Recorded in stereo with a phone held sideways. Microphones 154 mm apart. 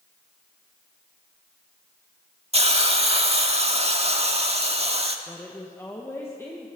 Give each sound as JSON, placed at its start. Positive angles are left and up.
{"t": 2.5, "sound": "a hiss", "side_deg": -40, "distance_m": 1.4}
{"t": 5.3, "sound": "a woman speaking", "side_deg": 15, "distance_m": 2.0}